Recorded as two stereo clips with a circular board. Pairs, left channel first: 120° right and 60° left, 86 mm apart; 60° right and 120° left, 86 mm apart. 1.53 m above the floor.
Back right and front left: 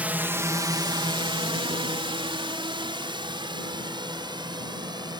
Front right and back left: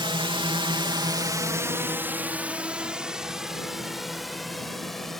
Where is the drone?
135° left; by 5.2 s 25° left.